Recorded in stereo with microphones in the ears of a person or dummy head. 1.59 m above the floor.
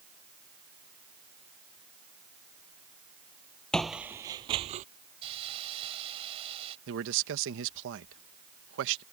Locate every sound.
3.7 s footsteps: 5° left (ahead or behind); by 4.8 s 45° right (ahead or behind)
5.2 s a hiss: 30° right (ahead or behind)
6.9 s a man speaking: 70° right (ahead or behind)